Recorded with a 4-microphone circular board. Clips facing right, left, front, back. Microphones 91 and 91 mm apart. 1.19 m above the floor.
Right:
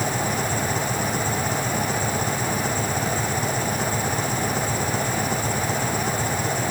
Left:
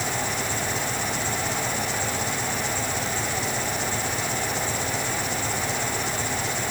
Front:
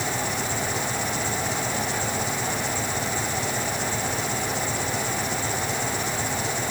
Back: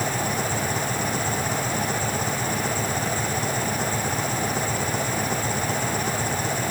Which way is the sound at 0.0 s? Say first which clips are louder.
Right 4 dB, back 2 dB; 135° right.